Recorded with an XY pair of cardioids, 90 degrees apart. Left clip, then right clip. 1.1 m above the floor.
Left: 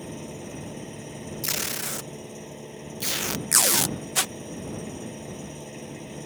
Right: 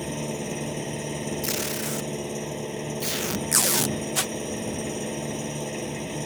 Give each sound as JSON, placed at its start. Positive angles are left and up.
{"t": 0.0, "sound": "an engine running", "azimuth_deg": -60}
{"t": 1.4, "sound": "tape being pulled", "azimuth_deg": 20}